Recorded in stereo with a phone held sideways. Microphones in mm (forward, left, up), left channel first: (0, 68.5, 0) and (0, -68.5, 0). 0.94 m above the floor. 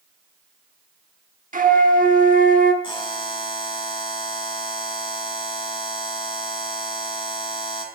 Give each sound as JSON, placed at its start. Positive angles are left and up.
{"t": 1.5, "sound": "a flute", "side_deg": -70, "distance_m": 1.1}
{"t": 2.8, "sound": "a buzzer", "side_deg": 35, "distance_m": 2.5}